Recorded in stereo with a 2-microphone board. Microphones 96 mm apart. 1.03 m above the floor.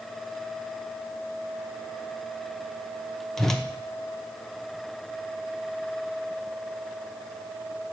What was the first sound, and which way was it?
A whoosh, 5° left (ahead or behind).